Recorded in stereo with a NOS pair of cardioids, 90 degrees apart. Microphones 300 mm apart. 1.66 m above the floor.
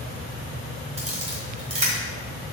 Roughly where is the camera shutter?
Ahead.